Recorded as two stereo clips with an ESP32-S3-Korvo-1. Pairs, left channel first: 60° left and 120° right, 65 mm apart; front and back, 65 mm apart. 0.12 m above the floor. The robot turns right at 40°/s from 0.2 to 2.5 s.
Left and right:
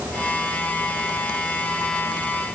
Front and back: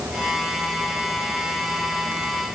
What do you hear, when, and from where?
Only background noise.